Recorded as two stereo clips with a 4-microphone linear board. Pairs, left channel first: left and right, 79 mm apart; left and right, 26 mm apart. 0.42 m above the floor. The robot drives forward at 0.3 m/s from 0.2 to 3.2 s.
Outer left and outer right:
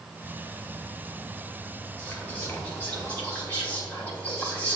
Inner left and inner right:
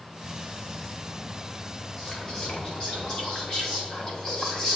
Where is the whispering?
25° left (ahead or behind), 2.5 m; by 4.8 s 20° left (ahead or behind), 3 m.